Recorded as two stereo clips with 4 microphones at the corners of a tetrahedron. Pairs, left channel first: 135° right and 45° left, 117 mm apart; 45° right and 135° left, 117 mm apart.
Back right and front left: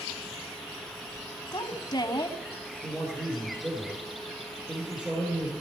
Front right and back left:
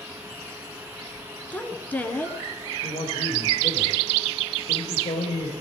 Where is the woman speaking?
110° right, 1.3 m.